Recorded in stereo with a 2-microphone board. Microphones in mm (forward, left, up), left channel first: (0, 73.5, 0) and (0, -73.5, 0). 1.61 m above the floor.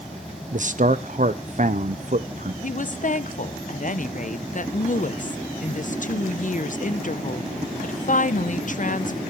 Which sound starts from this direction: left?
A woman speaking, at 2.6 s.